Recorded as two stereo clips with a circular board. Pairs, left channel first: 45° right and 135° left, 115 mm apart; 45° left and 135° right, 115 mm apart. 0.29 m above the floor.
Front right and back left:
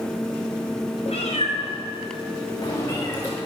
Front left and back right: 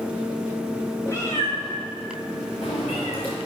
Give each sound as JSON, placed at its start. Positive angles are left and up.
{"t": 1.1, "sound": "a cat meowing", "azimuth_deg": -20, "distance_m": 4.0}